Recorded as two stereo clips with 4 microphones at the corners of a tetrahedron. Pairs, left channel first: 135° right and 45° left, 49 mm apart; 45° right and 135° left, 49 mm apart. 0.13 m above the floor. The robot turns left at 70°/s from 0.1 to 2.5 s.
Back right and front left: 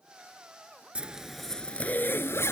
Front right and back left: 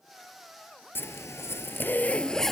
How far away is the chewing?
No chewing in this recording.